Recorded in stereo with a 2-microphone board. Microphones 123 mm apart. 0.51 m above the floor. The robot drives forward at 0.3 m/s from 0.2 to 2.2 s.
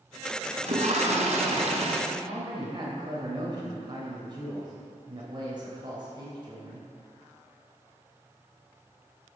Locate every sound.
0.6 s a toilet flushing: 75° right (ahead or behind), 1.5 m; by 2.0 s 60° right (ahead or behind), 1.7 m
2.1 s a man speaking: 40° right (ahead or behind), 2.5 m